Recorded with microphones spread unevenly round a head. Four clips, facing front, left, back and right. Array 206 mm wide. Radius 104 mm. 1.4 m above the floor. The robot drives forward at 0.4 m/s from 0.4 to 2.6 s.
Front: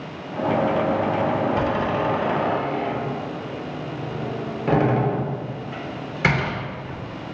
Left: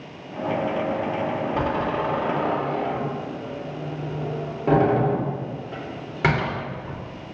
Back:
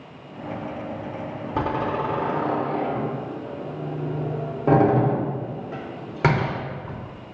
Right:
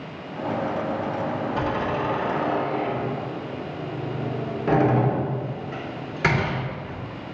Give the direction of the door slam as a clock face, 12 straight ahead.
7 o'clock.